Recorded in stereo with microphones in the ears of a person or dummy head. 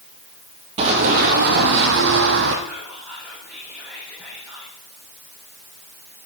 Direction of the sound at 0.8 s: 35° right (ahead or behind).